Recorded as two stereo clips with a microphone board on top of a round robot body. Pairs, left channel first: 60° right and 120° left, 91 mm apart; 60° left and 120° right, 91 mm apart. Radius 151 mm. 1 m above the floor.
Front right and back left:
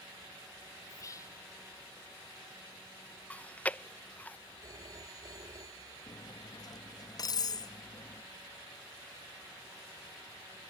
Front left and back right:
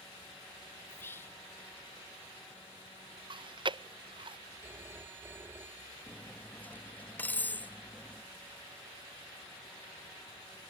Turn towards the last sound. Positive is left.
turn(degrees=-15)